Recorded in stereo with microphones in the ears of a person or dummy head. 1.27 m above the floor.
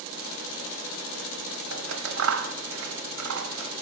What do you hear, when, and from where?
1.7 s scissors: 80° right, 0.8 m